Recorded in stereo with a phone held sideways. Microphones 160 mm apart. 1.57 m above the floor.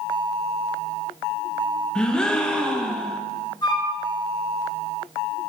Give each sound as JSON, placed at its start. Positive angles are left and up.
{"t": 1.9, "sound": "a gasp", "side_deg": 5, "distance_m": 0.6}
{"t": 3.6, "sound": "a flute", "side_deg": 25, "distance_m": 1.3}